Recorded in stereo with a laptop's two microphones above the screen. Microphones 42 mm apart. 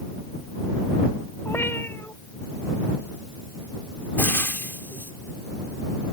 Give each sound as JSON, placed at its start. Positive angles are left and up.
{"t": 1.4, "sound": "a cat meowing", "side_deg": 70}
{"t": 4.2, "sound": "frying", "side_deg": 65}